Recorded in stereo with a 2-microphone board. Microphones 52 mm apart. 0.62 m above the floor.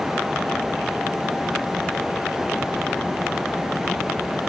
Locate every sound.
Only background noise.